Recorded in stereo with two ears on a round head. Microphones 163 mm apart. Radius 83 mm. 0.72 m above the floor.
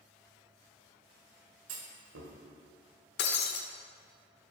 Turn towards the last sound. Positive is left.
turn(degrees=65)  # may be behind; listen again after turning